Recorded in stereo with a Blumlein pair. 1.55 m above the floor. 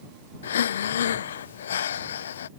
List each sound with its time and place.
0.4 s breathing: 65° left